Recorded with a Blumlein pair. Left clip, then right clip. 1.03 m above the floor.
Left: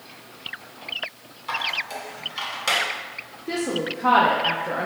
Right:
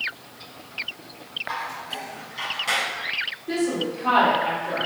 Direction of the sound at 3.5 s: 30° left.